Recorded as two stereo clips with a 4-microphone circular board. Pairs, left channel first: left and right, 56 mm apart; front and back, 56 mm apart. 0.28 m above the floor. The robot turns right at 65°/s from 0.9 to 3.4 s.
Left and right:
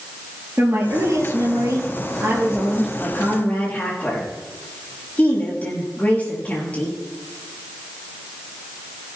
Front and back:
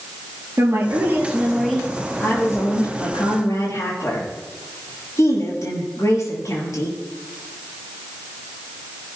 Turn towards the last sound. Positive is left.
turn(degrees=25)